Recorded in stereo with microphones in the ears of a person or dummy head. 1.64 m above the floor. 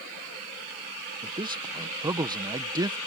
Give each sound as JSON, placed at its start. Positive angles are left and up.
{"t": 1.2, "sound": "a man speaking", "side_deg": -20}